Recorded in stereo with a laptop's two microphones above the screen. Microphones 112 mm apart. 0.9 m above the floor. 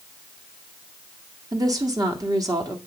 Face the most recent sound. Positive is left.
turn(degrees=-35)  # may be behind; listen again after turning